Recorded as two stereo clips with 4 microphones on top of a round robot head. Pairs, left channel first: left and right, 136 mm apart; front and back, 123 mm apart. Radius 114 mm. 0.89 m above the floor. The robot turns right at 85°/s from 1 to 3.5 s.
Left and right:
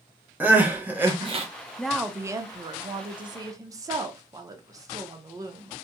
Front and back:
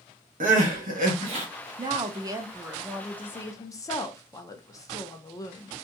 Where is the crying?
170° right, 0.8 m; by 1.4 s 130° right, 0.8 m.